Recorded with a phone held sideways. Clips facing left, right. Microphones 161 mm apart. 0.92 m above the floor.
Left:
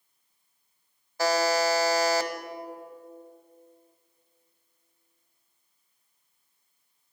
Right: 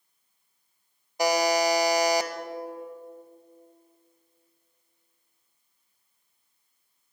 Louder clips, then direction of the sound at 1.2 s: Right 1 dB; 15° right (ahead or behind).